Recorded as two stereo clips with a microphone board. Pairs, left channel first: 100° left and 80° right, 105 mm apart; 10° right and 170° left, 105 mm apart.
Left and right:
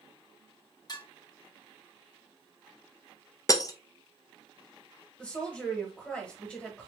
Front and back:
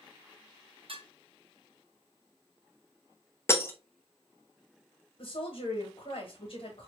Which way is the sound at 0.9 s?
145° left.